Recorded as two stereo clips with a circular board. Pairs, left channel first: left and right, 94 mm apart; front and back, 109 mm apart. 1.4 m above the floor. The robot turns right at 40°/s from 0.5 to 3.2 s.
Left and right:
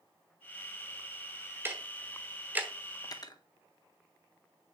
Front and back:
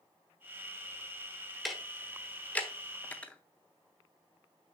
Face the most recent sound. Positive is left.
turn(degrees=75)